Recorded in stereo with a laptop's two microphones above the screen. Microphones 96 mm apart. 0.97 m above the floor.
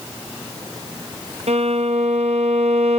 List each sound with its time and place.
1.5 s a violin: 85° right, 0.6 m